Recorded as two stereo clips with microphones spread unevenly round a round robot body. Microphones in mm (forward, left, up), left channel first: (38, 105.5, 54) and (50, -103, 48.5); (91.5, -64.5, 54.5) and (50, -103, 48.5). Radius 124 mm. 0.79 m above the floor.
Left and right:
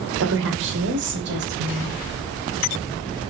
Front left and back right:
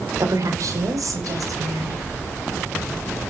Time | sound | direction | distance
0.2 | a woman speaking | 115° right | 2.5 m